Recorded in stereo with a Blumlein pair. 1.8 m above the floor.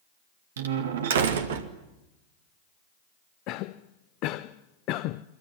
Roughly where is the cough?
Ahead left.